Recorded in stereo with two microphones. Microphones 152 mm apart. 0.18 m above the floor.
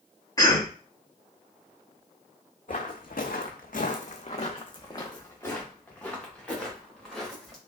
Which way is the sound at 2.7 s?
65° left (ahead or behind).